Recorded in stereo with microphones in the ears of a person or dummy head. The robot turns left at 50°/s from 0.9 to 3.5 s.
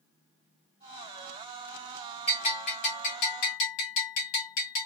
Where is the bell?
150° left, 1.2 m; by 4.9 s 85° left, 1.2 m.